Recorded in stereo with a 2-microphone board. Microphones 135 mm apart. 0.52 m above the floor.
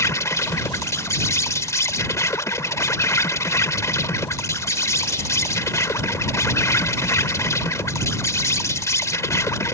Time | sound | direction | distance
0.0 | an insect | 25° left (ahead or behind) | ?